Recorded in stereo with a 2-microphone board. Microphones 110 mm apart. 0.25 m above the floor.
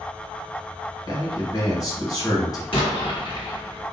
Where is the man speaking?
35° left (ahead or behind), 1.7 m.